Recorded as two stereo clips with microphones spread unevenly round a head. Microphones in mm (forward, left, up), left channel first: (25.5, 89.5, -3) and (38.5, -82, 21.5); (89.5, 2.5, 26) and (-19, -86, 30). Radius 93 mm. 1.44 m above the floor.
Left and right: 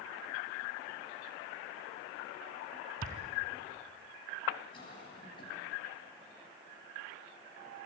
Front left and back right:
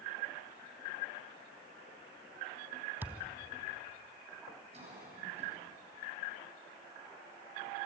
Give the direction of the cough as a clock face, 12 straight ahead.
7 o'clock.